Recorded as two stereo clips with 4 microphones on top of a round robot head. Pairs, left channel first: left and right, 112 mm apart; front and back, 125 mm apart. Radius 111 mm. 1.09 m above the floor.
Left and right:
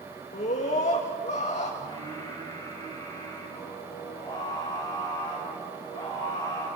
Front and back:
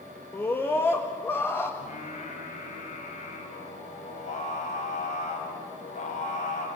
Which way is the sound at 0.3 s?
70° left.